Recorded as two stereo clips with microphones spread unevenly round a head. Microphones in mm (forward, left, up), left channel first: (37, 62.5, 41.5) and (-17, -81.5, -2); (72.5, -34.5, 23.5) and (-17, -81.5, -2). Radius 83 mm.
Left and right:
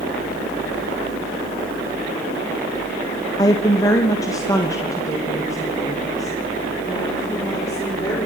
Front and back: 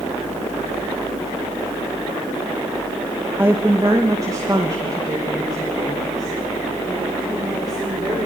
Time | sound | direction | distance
3.4 | a woman speaking | 125° left | 0.7 m